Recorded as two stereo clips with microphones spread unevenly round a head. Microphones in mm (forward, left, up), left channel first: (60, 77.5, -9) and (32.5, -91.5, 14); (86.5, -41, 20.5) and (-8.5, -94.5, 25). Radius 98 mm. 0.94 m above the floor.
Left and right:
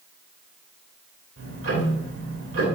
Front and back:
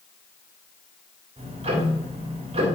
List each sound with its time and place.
1.4 s ticking: 125° right, 2.5 m